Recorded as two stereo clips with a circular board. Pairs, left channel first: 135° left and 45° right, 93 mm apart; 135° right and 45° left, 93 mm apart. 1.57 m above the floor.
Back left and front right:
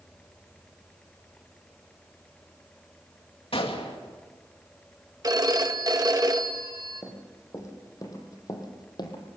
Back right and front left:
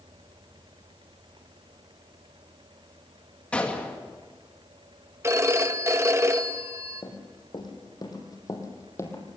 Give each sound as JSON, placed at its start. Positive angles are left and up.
{"t": 3.5, "sound": "a gunshot", "azimuth_deg": 150, "distance_m": 2.0}
{"t": 5.2, "sound": "a phone ringing", "azimuth_deg": -10, "distance_m": 1.2}
{"t": 7.0, "sound": "running footsteps", "azimuth_deg": -165, "distance_m": 4.5}